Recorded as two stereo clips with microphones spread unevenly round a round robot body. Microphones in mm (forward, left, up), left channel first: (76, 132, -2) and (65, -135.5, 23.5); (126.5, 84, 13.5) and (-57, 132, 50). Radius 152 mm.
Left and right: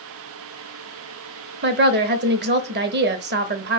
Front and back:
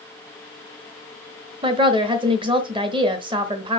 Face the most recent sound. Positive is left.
turn(degrees=-125)